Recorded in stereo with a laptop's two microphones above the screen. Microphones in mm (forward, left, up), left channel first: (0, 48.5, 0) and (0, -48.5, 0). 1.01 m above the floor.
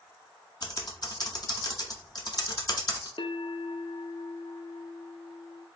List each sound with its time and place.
0.6 s typing on a keyboard: 45° left (ahead or behind), 0.7 m
3.2 s a bell: 65° left (ahead or behind), 0.7 m